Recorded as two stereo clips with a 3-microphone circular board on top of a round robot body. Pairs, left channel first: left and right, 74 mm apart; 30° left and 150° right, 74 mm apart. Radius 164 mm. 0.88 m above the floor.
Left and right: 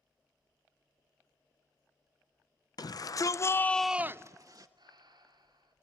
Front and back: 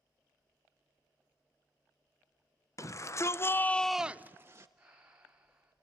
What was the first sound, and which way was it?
A shout, 70° left.